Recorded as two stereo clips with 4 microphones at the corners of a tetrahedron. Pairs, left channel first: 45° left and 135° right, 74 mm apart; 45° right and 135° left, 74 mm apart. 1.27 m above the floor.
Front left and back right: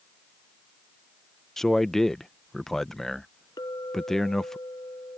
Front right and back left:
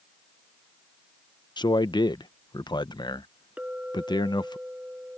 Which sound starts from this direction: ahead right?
A man speaking, at 1.6 s.